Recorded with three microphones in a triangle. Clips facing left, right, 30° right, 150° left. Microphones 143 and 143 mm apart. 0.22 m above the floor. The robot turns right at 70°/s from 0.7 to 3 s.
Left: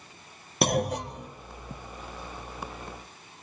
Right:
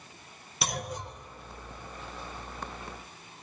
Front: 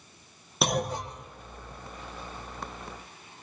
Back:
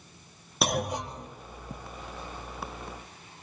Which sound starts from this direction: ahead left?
A clunk, at 0.6 s.